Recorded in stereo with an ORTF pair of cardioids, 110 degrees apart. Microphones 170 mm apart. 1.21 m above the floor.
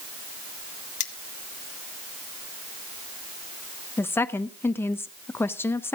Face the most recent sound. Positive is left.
turn(degrees=15)